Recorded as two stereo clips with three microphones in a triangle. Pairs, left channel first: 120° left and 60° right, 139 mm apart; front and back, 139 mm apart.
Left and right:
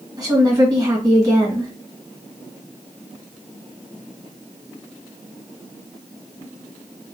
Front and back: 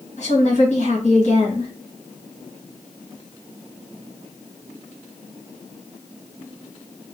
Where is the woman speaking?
Straight ahead, 2 m.